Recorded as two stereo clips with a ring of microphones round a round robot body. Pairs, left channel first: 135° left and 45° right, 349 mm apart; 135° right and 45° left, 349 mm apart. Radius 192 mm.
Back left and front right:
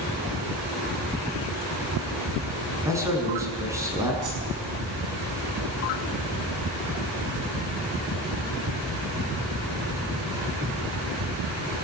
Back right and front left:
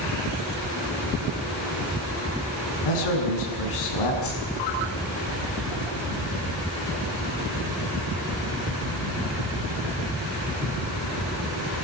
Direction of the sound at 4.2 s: 80° right.